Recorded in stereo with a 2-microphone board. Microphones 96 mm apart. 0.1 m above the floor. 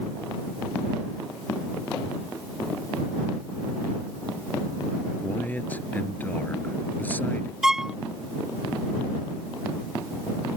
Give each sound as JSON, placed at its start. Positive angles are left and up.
{"t": 5.2, "sound": "a man speaking", "side_deg": 20}
{"t": 7.6, "sound": "a violin", "side_deg": -5}